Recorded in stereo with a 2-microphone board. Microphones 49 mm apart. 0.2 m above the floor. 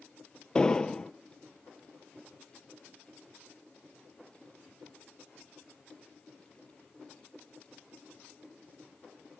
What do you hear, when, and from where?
0.6 s an explosion: 15° left (ahead or behind), 0.7 m